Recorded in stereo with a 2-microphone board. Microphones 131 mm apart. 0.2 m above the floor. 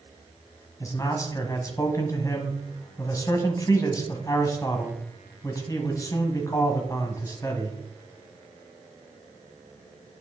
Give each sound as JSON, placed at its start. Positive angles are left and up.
{"t": 0.8, "sound": "a man speaking", "side_deg": 25, "distance_m": 1.5}